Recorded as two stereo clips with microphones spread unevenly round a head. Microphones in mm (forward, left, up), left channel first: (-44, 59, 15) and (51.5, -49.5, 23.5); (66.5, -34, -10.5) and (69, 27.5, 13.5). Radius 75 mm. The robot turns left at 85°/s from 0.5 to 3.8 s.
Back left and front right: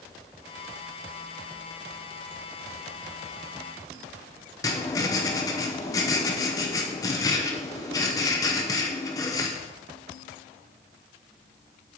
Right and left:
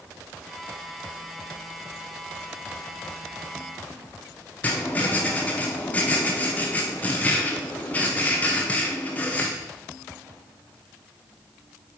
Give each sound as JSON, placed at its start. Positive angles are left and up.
{"t": 4.6, "sound": "writing", "azimuth_deg": 175, "distance_m": 0.7}